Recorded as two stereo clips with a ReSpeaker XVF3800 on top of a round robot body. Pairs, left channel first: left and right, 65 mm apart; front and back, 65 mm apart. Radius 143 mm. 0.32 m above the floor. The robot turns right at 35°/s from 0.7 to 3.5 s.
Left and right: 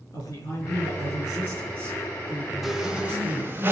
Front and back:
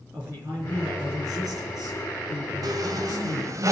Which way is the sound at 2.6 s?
175° right.